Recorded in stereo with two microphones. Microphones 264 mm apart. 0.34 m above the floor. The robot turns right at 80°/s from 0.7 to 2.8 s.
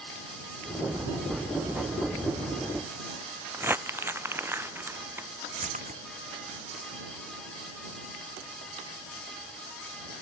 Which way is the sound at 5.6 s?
30° right (ahead or behind).